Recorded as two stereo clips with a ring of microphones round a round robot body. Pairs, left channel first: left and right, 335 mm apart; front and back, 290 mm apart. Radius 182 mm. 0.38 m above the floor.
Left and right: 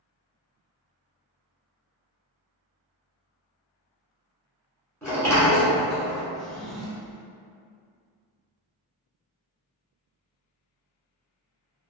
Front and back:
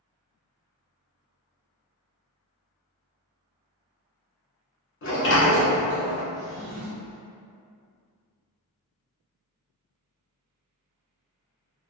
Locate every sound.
5.0 s a sliding door: 10° left, 1.1 m
6.3 s a drawer: straight behind, 0.6 m